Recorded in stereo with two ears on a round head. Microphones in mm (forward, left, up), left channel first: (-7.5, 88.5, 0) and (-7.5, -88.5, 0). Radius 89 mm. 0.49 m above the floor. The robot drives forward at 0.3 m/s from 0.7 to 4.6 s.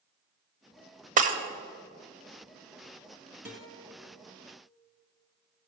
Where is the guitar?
10° right (ahead or behind), 2.5 m.